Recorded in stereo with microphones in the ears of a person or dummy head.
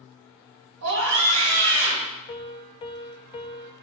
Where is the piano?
30° left (ahead or behind), 0.6 m.